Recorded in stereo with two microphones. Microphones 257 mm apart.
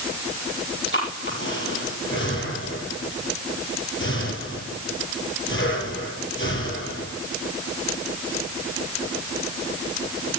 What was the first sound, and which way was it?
Breathing, 50° left (ahead or behind).